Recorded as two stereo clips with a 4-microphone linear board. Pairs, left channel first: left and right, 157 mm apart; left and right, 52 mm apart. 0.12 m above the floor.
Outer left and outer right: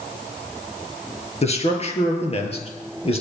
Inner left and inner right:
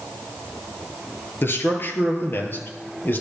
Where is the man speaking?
45° left (ahead or behind), 2.5 m; by 3.2 s 40° left (ahead or behind), 3.5 m.